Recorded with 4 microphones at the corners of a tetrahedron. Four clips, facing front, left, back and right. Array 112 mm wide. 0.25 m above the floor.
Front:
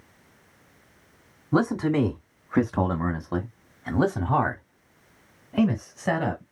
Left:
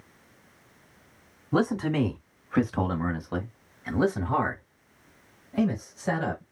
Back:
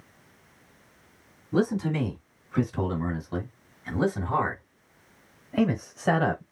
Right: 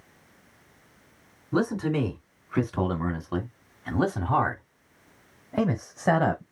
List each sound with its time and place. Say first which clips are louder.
1.5 s a man speaking: left 1 dB, front 3 dB; 10° left, 2 m; by 6.4 s 105° right, 1.6 m